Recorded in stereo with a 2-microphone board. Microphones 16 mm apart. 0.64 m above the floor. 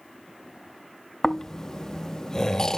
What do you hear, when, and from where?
1.2 s snoring: 30° left (ahead or behind), 0.6 m